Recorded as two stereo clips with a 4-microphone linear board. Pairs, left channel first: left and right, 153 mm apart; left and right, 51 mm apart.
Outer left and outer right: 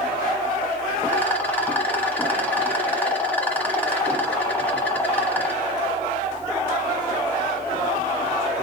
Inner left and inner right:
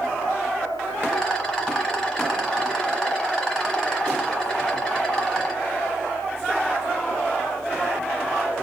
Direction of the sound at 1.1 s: 10° left (ahead or behind).